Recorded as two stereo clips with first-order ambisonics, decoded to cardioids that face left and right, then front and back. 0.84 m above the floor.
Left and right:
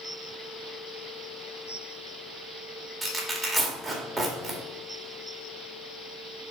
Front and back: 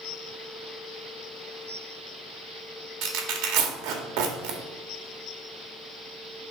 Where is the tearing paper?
Straight behind, 1.7 m.